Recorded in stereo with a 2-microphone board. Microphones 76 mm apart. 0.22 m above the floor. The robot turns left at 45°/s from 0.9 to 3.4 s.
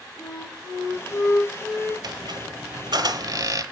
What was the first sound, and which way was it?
A flute, 35° left.